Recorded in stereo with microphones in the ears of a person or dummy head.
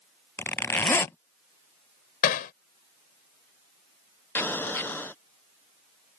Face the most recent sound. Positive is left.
turn(degrees=10)  # may be behind; listen again after turning